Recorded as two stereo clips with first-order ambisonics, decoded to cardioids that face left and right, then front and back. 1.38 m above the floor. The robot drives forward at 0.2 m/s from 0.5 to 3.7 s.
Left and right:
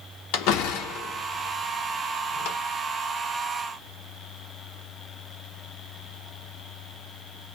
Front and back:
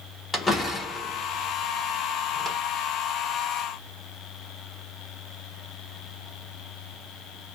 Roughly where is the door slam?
Left.